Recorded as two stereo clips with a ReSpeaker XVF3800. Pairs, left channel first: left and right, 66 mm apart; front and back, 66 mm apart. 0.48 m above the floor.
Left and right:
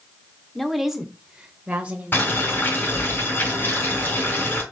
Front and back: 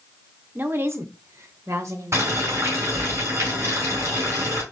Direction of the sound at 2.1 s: 145° left.